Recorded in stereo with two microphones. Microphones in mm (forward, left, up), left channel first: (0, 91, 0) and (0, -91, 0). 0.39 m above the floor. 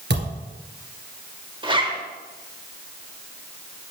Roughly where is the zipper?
Right.